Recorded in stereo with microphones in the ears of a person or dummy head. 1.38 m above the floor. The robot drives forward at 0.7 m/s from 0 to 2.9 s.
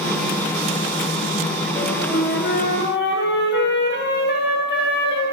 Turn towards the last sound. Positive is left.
turn(degrees=60)  # may be behind; listen again after turning